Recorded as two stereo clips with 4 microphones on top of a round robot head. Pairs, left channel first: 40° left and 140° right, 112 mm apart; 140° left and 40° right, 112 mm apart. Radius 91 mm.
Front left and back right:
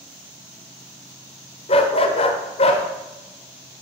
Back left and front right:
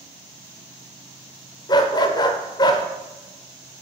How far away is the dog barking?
About 0.9 m.